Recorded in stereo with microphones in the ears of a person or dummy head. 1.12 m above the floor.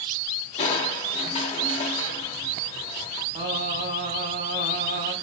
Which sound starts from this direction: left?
Crushing, at 0.6 s.